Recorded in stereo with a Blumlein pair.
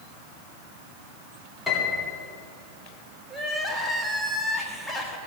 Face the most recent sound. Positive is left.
turn(degrees=5)